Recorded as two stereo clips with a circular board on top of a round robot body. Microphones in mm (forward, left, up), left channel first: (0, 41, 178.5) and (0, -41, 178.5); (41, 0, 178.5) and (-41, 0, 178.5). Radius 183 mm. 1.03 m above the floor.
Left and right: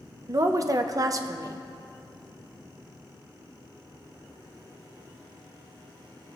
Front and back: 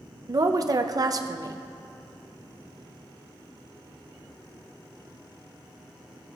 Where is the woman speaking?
135° right, 0.6 m.